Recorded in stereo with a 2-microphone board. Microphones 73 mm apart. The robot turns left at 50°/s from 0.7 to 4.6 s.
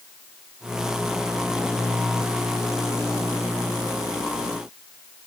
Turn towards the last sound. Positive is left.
No sound to turn to.